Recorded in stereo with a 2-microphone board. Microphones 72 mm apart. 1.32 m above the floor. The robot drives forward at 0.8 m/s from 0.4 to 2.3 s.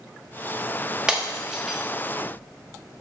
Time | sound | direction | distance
1.1 | breaking glass | 10° right (ahead or behind) | 1.3 m